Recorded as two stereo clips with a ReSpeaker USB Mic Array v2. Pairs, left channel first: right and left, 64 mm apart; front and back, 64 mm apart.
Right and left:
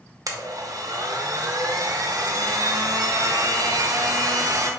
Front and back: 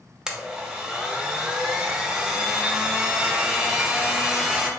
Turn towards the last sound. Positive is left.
turn(degrees=100)